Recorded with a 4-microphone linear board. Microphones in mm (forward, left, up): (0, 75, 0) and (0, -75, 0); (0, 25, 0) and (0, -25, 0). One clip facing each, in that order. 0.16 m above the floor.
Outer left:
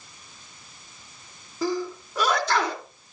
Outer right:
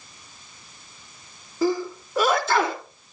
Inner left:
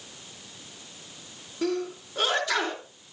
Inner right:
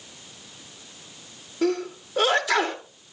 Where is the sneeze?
5° right (ahead or behind), 2.5 m.